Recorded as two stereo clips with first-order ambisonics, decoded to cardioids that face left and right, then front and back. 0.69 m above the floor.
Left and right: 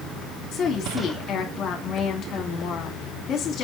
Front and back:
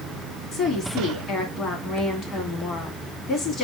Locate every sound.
0.5 s a woman speaking: 50° left, 1.4 m